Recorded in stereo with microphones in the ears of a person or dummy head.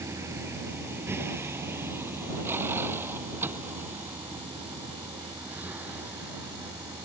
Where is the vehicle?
10° right (ahead or behind); by 7.1 s 5° right (ahead or behind).